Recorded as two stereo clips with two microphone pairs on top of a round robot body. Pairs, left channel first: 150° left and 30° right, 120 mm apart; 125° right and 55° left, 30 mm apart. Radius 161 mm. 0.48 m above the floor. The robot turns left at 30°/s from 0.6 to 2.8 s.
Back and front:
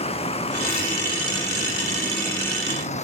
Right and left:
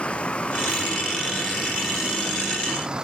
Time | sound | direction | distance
0.0 | a vehicle | 170° right | ?